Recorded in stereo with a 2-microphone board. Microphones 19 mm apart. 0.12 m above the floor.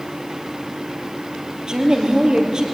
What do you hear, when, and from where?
1.7 s a woman speaking: 35° right (ahead or behind), 3 m